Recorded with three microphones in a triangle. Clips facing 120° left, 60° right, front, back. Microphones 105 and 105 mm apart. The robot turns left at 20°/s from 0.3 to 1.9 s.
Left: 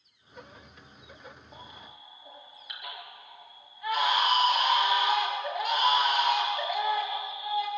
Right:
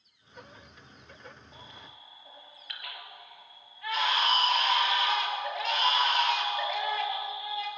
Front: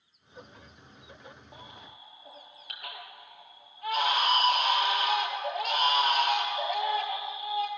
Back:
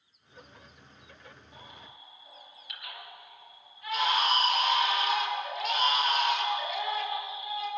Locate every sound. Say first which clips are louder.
1.5 s a baby crying: left 2 dB, front 2 dB; 50° left, 6 m; by 7.7 s 40° left, 6 m